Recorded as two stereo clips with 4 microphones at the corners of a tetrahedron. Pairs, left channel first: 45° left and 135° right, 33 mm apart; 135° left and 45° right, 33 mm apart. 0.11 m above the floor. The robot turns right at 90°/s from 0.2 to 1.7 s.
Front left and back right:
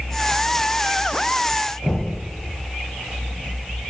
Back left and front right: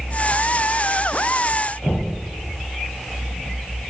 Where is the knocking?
150° left, 3.5 m.